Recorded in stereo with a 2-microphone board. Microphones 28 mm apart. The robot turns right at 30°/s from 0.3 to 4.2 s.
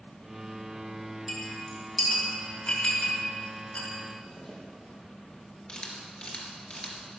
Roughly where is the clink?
Right.